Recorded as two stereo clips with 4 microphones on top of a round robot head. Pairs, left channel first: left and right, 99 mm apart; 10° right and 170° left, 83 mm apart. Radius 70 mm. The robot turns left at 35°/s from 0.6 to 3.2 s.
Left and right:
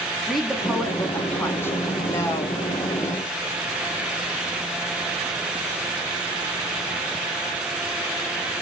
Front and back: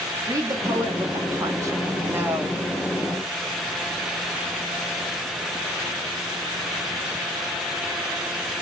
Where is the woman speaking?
Straight behind, 0.8 m; by 2.6 s 115° left, 0.8 m.